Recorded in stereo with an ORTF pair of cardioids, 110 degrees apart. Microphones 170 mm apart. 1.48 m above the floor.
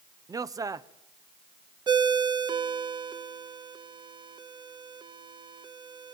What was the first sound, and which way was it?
A man speaking, 20° right.